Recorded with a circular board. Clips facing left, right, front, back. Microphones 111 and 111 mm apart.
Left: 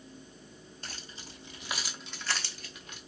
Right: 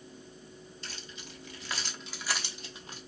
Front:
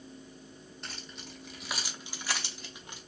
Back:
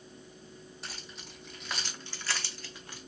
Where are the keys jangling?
95° left, 0.9 m; by 3.0 s 60° right, 0.8 m.